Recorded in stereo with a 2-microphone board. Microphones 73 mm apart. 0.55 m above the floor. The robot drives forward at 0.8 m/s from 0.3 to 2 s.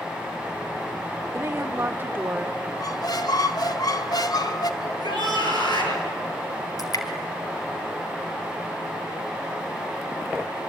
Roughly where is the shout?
Left.